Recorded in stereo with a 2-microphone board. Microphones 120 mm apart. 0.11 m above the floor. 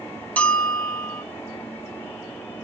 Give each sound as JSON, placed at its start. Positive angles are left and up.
{"t": 0.4, "sound": "a bell", "side_deg": 10, "distance_m": 1.5}